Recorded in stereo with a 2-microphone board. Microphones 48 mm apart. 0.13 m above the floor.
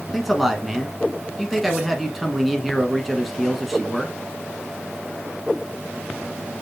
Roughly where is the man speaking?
Centre.